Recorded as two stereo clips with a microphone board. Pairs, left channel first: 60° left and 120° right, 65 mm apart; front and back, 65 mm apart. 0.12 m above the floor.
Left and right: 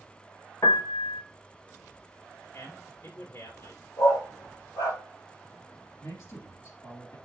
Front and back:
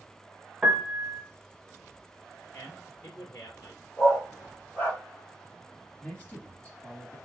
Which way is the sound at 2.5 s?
35° left.